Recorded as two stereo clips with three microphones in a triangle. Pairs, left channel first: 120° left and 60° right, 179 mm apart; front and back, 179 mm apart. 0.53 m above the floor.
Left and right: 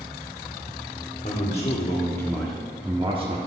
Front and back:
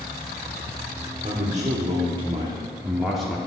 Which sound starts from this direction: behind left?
A man speaking, at 1.2 s.